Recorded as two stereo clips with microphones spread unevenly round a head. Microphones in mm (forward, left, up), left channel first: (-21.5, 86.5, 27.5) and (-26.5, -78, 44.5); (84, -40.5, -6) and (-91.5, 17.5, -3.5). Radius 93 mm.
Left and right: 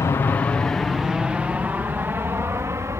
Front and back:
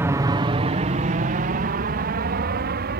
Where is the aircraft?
105° left; by 3.0 s 165° right.